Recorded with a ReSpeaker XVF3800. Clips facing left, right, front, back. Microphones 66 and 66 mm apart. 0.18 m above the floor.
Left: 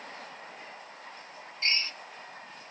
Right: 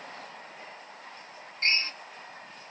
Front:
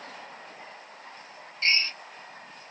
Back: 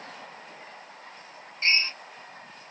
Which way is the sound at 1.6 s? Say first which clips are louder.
Right 3 dB, back 1 dB; 125° right.